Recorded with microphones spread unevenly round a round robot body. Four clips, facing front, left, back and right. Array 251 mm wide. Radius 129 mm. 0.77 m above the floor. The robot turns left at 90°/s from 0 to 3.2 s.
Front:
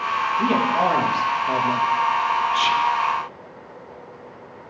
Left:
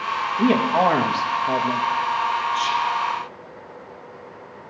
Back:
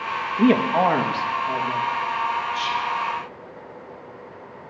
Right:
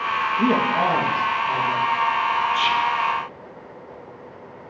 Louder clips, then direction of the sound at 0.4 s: Left 3 dB, back 4 dB; 175° left.